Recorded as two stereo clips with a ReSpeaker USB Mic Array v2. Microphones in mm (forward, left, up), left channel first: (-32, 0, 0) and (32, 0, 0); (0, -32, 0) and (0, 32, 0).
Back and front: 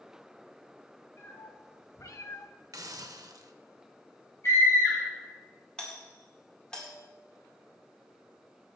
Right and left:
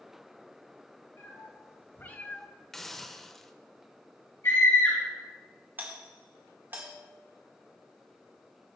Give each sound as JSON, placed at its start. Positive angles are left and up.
{"t": 1.2, "sound": "a cat meowing", "azimuth_deg": -135, "distance_m": 2.0}
{"t": 2.7, "sound": "a hiss", "azimuth_deg": -5, "distance_m": 0.6}
{"t": 4.4, "sound": "a scream", "azimuth_deg": -135, "distance_m": 4.0}
{"t": 5.8, "sound": "a doorbell", "azimuth_deg": 115, "distance_m": 1.8}